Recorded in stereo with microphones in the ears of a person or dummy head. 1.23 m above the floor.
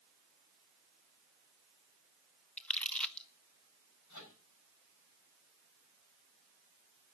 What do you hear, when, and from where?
2.6 s crumpling: 5° left (ahead or behind), 0.7 m
4.1 s a microwave: 65° left (ahead or behind), 6.5 m